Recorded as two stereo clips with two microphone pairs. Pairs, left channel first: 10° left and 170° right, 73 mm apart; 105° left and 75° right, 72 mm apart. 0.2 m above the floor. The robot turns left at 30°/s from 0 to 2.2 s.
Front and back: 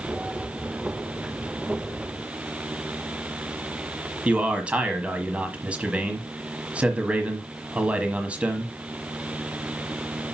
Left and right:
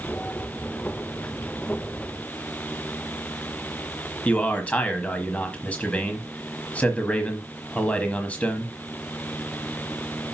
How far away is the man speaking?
About 1.1 m.